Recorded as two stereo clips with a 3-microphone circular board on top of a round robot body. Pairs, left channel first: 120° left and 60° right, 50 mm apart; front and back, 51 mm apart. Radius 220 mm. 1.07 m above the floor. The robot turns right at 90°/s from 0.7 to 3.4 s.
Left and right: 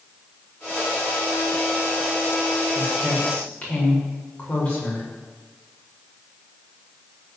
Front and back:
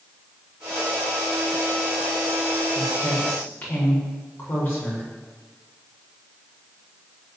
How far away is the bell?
I don't hear a bell.